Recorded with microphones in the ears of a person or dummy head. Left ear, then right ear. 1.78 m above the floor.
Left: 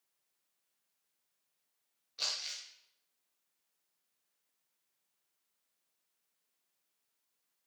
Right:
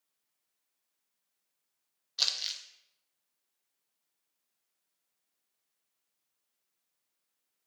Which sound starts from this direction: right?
Crumpling, at 2.2 s.